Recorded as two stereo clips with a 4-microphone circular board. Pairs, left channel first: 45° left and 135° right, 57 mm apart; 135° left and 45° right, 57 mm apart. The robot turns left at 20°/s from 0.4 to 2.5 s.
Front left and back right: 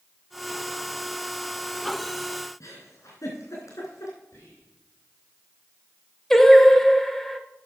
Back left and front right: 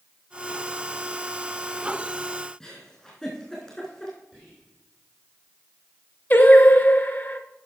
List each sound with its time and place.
2.6 s a giggle: 50° left, 3.5 m
4.3 s whispering: 35° left, 4 m
6.3 s singing: 120° left, 1.0 m